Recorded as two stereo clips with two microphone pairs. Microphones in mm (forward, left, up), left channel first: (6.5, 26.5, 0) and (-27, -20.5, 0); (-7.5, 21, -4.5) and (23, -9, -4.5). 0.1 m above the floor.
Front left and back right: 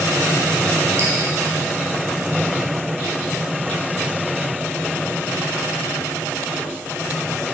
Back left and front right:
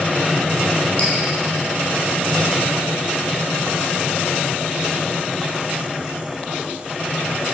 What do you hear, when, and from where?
1.0 s dripping: 165° right, 3 m